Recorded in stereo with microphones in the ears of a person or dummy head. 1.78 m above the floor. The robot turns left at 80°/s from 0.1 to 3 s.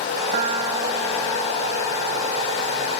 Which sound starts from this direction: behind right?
A piano, at 0.3 s.